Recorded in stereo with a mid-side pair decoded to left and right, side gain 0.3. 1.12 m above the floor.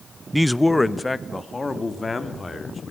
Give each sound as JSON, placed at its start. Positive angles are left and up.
{"t": 0.3, "sound": "a man speaking", "azimuth_deg": -5, "distance_m": 0.6}